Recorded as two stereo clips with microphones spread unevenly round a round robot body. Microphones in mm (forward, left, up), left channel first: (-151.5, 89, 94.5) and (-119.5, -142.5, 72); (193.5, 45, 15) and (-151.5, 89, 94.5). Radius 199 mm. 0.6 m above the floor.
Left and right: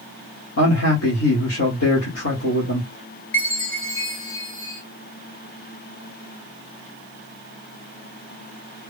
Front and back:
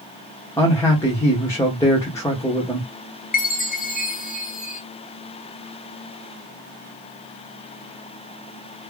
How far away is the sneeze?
No sneeze in this recording.